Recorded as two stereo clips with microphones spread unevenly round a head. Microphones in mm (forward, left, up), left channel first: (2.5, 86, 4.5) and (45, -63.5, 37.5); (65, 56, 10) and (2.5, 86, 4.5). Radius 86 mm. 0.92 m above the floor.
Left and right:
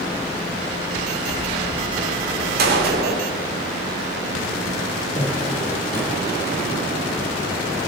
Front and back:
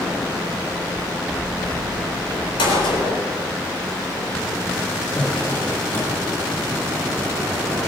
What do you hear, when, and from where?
2.6 s a gunshot: 50° right, 3.5 m
5.2 s a drawer: 30° left, 9.5 m